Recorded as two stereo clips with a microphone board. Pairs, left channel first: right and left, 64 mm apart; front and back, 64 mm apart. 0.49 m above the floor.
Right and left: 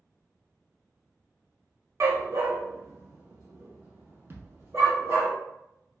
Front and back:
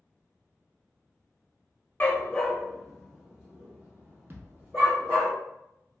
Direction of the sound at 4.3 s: 135° left.